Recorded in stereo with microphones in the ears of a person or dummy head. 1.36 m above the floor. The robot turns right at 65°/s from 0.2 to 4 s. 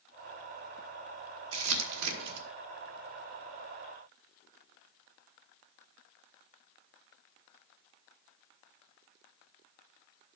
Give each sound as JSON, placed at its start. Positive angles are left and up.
{"t": 1.5, "sound": "crumpling", "side_deg": -65, "distance_m": 1.5}